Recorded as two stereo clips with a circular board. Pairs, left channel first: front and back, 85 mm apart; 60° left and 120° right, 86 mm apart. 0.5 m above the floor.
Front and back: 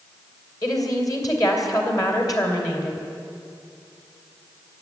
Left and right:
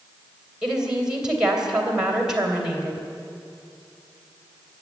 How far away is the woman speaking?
About 2.5 m.